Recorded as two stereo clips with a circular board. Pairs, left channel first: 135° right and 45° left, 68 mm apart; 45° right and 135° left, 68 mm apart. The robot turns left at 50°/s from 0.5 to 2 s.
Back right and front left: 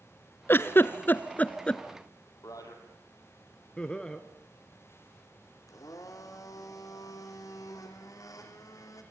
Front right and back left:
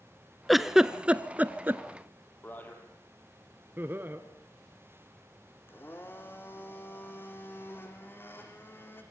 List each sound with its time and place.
0.5 s a giggle: 135° right, 0.8 m; by 1.8 s 160° left, 0.8 m
2.4 s a man speaking: 105° right, 4.5 m
3.8 s laughter: 160° left, 1.2 m
5.7 s a blender: 100° right, 3.5 m